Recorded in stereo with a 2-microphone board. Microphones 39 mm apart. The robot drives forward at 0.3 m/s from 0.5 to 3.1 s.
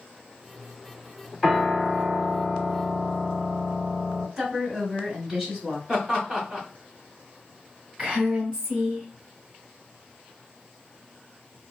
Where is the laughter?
15° right (ahead or behind), 1.1 m.